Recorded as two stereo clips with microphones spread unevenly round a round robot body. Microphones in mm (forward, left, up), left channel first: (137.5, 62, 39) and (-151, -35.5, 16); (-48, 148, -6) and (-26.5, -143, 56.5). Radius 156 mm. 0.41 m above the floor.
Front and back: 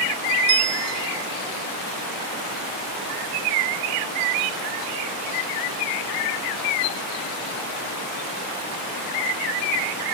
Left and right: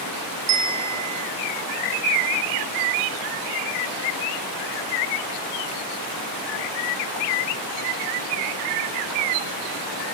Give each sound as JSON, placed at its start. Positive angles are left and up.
{"t": 0.5, "sound": "a bell", "azimuth_deg": -125, "distance_m": 0.8}